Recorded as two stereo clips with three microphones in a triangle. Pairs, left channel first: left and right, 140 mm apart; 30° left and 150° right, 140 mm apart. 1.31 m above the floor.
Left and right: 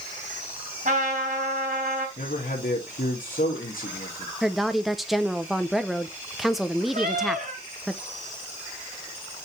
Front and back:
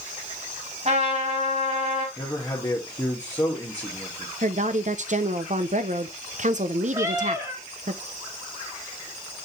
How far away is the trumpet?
About 3 m.